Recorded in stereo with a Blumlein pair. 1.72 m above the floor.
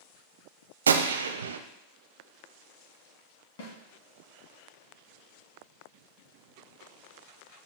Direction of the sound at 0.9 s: 70° right.